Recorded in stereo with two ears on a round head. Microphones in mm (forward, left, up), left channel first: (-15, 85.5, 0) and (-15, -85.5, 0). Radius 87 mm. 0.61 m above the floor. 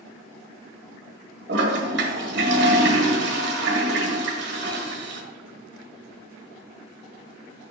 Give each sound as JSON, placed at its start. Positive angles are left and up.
{"t": 1.5, "sound": "a toilet flushing", "side_deg": -55, "distance_m": 1.5}